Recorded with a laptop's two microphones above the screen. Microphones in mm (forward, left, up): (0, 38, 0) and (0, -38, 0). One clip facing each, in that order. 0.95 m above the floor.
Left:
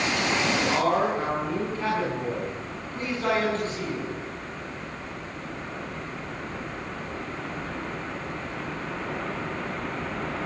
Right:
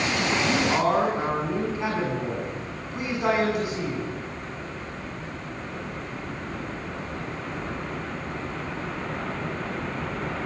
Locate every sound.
0.4 s a man speaking: 15° right (ahead or behind), 8.5 m